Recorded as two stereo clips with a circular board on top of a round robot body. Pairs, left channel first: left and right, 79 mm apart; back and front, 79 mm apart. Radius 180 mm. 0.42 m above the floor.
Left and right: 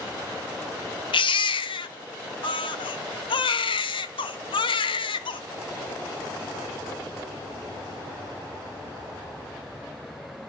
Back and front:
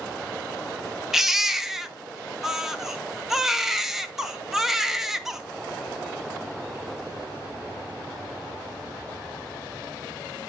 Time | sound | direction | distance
1.1 | a baby crying | 85° left | 0.7 m